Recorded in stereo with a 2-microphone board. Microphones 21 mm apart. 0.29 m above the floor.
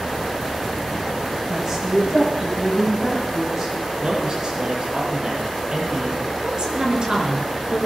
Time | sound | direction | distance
1.5 | a woman speaking | 25° right (ahead or behind) | 8 m
4.0 | a man speaking | 40° right (ahead or behind) | 7 m
6.4 | a woman speaking | 40° right (ahead or behind) | 4 m